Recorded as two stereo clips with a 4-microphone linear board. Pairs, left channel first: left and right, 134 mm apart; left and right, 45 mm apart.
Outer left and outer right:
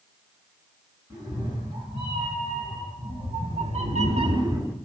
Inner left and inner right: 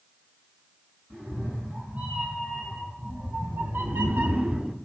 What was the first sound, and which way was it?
A cat meowing, 30° right (ahead or behind).